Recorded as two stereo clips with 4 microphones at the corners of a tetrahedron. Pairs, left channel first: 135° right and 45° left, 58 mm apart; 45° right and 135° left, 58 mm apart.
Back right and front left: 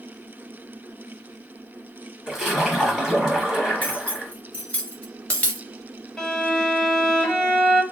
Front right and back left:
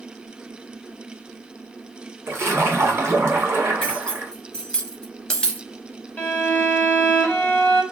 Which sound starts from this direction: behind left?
A splash, at 2.3 s.